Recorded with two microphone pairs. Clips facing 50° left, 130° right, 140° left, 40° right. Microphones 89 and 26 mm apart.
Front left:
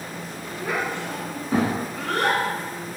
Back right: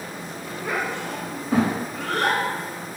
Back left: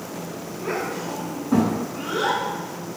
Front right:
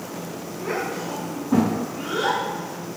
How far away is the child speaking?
About 1.5 m.